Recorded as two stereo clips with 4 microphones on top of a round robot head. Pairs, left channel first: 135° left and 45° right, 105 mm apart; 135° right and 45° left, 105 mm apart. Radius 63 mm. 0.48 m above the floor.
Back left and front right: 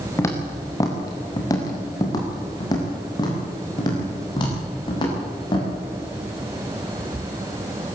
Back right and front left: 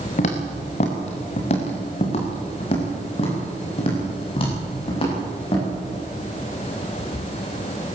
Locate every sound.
0.2 s footsteps: 160° right, 3.5 m; by 5.7 s 175° right, 10 m